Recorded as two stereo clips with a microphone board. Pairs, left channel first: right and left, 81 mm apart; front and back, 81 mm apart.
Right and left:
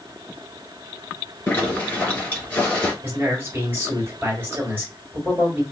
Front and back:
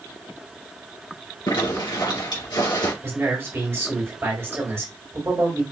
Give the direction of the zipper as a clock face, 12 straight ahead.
1 o'clock.